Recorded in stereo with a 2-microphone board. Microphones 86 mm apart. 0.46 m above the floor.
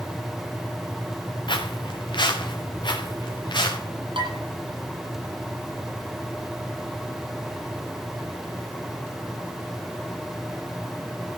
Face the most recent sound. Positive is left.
turn(degrees=-80)